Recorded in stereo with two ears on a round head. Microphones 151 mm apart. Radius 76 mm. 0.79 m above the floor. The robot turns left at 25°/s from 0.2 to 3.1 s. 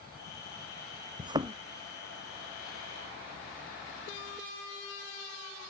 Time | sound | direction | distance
1.2 | a thud | 30° right (ahead or behind) | ?